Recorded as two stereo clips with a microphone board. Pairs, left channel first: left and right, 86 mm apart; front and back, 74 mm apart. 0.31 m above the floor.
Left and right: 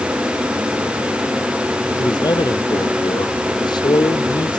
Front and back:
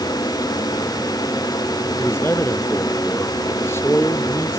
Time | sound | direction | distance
2.0 | a man speaking | 60° left | ?